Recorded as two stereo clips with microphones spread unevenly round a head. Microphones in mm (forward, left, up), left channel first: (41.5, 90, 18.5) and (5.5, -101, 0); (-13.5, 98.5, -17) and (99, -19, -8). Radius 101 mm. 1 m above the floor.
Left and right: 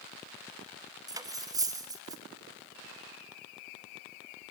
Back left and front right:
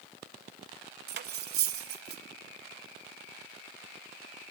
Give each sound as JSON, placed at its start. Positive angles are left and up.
{"t": 1.1, "sound": "cutlery clinking", "azimuth_deg": -25, "distance_m": 0.7}